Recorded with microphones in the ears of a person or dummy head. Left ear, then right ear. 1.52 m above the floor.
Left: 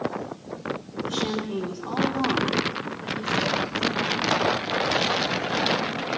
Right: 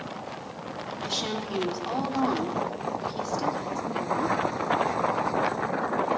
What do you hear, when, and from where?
1.1 s a woman speaking: 85° right, 4 m